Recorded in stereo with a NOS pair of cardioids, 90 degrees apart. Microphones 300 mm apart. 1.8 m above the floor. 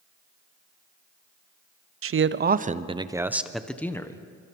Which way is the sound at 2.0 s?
45° right.